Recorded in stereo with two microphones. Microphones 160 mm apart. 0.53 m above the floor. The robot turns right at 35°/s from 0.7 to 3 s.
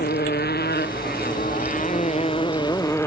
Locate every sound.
0.0 s a motorcycle: 90° left; by 3.1 s 15° left (ahead or behind)